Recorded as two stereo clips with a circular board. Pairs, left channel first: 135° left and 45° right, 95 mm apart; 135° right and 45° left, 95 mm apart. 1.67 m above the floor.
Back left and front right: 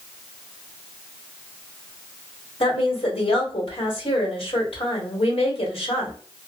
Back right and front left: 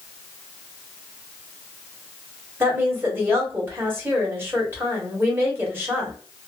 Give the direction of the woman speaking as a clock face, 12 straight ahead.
8 o'clock.